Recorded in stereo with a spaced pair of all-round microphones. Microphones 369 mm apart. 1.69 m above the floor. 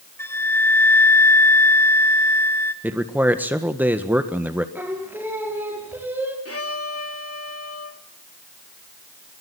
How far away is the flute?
About 1.7 m.